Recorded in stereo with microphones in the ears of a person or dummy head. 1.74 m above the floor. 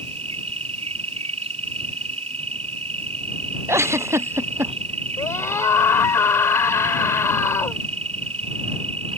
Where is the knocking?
No knocking in this recording.